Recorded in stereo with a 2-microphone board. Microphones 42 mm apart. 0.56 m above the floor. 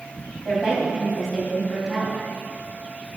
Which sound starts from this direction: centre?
A woman speaking, at 0.5 s.